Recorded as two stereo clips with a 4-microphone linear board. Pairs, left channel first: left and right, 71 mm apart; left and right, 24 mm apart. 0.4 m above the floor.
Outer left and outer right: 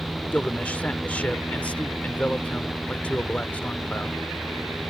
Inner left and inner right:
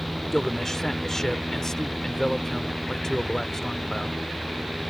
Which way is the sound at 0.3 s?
20° left (ahead or behind).